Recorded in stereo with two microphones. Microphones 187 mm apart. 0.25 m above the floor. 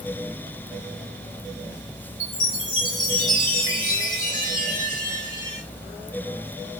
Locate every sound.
2.2 s a chime: 40° left (ahead or behind), 1.3 m